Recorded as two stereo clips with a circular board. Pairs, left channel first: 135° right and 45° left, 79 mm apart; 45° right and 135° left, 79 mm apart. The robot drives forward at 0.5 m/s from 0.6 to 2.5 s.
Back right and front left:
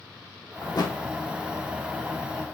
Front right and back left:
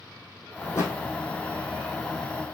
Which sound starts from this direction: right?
A thud, at 0.6 s.